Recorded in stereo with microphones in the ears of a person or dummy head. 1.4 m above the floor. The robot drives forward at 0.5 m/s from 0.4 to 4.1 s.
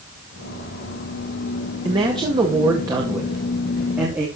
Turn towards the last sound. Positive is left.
turn(degrees=-15)  # may be behind; listen again after turning